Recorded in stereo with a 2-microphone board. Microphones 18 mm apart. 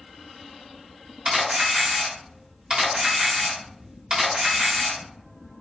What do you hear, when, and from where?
1.2 s a camera shutter: 50° right (ahead or behind), 1.2 m